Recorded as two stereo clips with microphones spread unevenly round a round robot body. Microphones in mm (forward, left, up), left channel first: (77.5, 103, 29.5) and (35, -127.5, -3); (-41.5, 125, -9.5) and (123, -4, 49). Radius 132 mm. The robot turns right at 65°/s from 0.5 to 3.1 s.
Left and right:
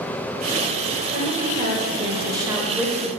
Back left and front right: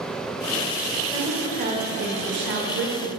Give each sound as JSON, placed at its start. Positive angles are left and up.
{"t": 1.1, "sound": "a woman speaking", "azimuth_deg": -130, "distance_m": 1.3}